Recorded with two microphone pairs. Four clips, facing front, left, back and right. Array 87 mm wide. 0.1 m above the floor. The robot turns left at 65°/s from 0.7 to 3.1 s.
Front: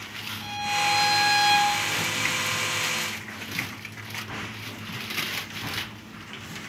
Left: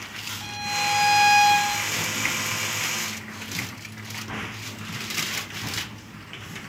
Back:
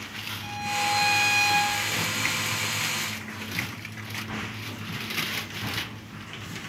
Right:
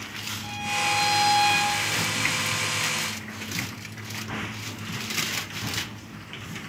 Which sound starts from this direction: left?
A violin, at 0.4 s.